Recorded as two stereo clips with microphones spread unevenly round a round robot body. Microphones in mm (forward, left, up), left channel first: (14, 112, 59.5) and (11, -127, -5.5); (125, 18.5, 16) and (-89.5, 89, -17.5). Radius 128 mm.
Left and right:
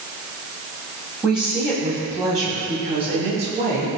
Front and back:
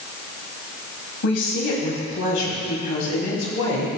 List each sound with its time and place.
1.2 s a woman speaking: 5° right, 3 m; by 3.9 s 35° right, 3.5 m